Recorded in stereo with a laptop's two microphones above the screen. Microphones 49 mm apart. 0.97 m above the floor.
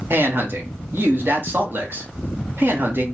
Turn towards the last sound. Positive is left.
turn(degrees=-50)  # may be behind; listen again after turning